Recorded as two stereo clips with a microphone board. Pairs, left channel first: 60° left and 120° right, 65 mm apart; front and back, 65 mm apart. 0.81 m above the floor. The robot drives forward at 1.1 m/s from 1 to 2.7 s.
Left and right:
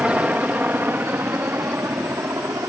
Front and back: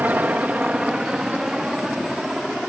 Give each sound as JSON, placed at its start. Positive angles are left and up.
{"t": 0.0, "sound": "a helicopter", "azimuth_deg": -170}